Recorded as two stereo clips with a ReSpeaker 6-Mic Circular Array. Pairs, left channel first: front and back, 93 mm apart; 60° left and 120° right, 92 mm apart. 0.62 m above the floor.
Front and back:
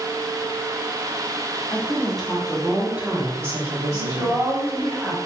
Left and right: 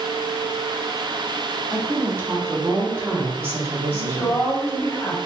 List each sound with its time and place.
1.7 s a woman speaking: 70° right, 1.5 m; by 4.9 s 170° left, 1.7 m
3.9 s a woman speaking: 120° left, 1.3 m